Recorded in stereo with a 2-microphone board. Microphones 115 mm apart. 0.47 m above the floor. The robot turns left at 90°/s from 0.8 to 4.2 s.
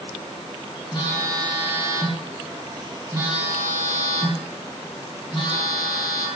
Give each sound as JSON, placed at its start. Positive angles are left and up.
{"t": 0.9, "sound": "a phone buzzing", "azimuth_deg": 55, "distance_m": 1.7}